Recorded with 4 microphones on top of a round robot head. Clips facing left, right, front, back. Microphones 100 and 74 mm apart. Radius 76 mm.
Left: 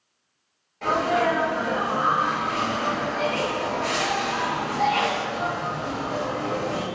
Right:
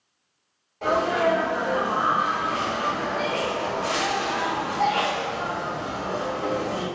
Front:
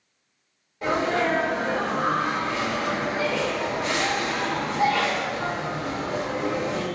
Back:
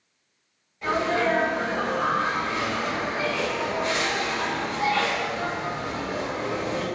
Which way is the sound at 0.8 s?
15° right.